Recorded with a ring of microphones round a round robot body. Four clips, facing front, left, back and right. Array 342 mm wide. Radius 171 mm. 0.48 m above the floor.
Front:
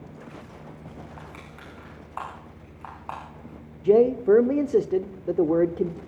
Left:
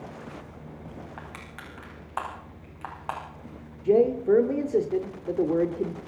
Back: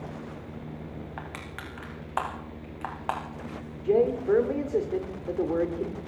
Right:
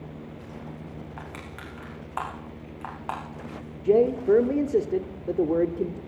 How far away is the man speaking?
About 1.4 m.